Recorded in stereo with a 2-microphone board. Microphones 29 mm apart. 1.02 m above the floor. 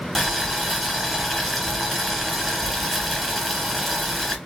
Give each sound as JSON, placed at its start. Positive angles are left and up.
{"t": 0.1, "sound": "boiling", "side_deg": 10, "distance_m": 2.5}